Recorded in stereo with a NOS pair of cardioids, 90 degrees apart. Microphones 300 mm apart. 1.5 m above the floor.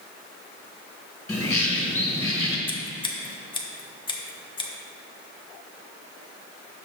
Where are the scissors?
15° left, 1.0 m.